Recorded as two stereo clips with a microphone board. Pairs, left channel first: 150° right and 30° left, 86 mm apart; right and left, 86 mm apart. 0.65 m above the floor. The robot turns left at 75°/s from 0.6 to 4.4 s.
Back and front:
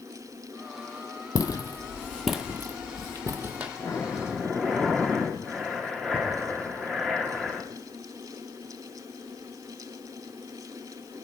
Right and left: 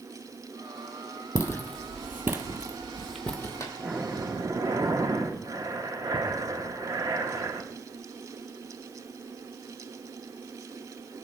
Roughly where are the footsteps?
Behind right.